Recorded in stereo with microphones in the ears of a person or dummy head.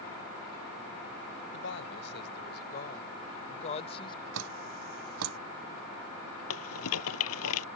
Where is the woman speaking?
65° left (ahead or behind); by 4.2 s 25° left (ahead or behind).